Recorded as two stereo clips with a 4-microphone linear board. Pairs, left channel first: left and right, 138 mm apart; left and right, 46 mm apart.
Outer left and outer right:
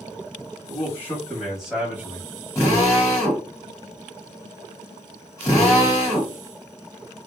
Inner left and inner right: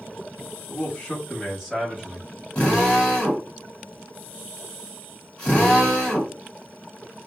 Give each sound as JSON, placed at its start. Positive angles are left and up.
{"t": 0.7, "sound": "a man speaking", "side_deg": 20, "distance_m": 1.3}
{"t": 2.5, "sound": "a drill", "side_deg": 20, "distance_m": 1.6}